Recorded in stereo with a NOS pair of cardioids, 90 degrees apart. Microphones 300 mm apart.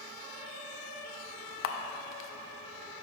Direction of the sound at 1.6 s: 45° left.